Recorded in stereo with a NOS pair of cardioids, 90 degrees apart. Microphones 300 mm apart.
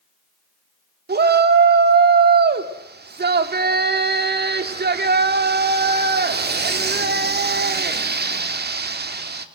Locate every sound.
1.1 s a shout: 35° right, 3 m